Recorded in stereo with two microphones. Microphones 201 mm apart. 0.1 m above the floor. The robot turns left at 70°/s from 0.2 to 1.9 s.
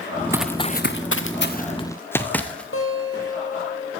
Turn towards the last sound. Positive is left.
turn(degrees=75)  # may be behind; listen again after turning